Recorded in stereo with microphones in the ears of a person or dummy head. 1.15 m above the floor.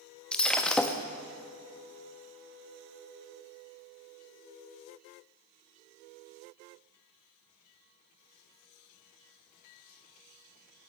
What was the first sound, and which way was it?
Breaking glass, 5° left (ahead or behind).